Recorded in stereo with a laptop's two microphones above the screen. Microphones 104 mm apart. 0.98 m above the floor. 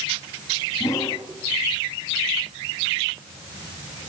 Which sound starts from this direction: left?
A whoosh, at 0.8 s.